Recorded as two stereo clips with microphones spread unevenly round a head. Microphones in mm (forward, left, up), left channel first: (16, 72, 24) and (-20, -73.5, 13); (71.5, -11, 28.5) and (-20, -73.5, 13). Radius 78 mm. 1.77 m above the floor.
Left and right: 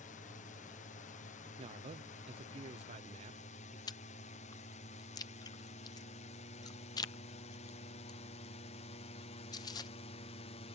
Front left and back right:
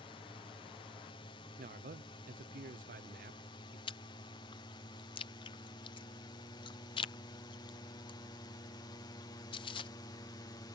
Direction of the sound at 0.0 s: 70° left.